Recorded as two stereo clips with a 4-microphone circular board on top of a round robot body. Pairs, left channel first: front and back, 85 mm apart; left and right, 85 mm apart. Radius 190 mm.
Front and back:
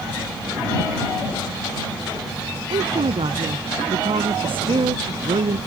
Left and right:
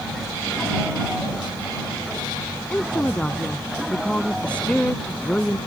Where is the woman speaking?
170° left; by 5.6 s 165° left.